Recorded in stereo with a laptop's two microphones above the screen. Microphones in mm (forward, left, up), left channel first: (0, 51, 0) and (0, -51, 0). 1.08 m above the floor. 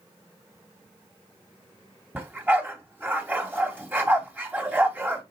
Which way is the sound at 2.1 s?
15° right (ahead or behind).